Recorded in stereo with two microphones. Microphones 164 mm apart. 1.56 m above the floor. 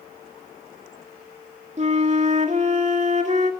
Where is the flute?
50° right (ahead or behind), 2.5 m.